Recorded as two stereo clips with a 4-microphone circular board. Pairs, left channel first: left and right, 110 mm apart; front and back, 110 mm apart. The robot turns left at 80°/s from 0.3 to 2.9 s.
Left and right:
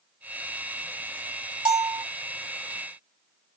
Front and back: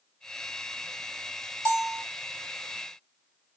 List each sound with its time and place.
1.6 s a bell: 120° right, 2.0 m; by 2.0 s 150° right, 2.0 m